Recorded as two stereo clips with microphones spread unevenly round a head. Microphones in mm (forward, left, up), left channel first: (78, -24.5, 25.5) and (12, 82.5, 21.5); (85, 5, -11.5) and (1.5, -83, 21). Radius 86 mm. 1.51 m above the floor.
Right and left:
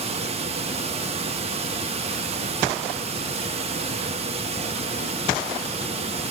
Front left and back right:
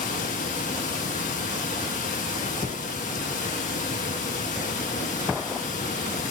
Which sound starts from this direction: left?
Running water, at 0.0 s.